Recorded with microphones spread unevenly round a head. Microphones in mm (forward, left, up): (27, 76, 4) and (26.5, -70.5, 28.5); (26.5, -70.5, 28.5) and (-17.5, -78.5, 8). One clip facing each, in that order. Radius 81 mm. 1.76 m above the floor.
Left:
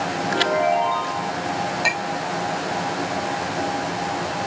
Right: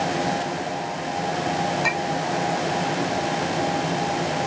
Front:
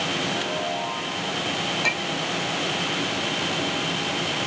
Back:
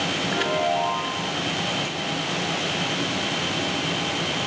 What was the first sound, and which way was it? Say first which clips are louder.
A chime: left 7 dB, back 4 dB; 115° left.